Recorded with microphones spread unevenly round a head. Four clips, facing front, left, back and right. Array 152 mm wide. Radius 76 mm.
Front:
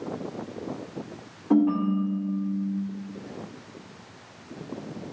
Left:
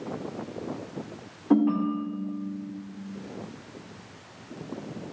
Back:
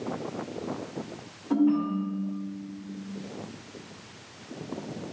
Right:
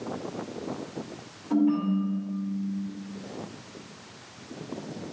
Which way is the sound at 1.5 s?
55° left.